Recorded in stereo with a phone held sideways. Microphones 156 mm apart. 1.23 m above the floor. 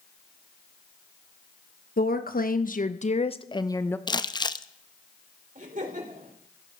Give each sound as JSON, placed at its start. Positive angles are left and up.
{"t": 2.0, "sound": "a woman speaking", "side_deg": 80, "distance_m": 1.1}
{"t": 4.1, "sound": "crumpling", "side_deg": 30, "distance_m": 0.5}
{"t": 5.5, "sound": "laughter", "side_deg": -60, "distance_m": 3.5}